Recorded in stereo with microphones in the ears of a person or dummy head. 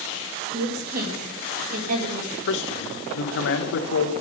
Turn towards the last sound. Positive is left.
turn(degrees=70)  # may be behind; listen again after turning